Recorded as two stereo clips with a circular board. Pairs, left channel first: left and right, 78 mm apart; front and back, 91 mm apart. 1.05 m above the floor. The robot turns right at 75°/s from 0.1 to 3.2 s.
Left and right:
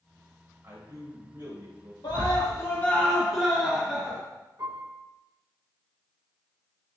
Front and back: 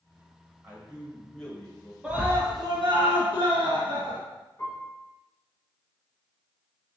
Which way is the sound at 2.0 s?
100° left.